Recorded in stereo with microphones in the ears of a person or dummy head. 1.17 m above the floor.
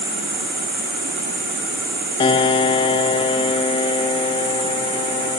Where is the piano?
25° left (ahead or behind), 0.7 m.